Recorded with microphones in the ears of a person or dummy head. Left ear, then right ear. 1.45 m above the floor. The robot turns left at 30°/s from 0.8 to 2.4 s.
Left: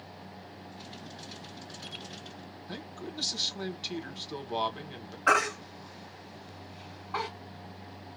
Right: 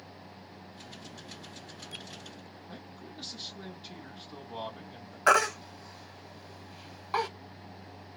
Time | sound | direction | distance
2.7 | a man speaking | 35° left (ahead or behind) | 1.1 m
5.3 | a baby crying | 60° right (ahead or behind) | 0.9 m